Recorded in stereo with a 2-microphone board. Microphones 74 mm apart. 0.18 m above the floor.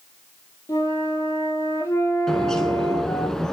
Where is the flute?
45° left (ahead or behind), 3 m.